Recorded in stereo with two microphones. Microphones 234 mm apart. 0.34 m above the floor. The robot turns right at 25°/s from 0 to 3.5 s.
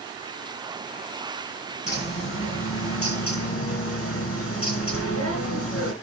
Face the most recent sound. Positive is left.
turn(degrees=90)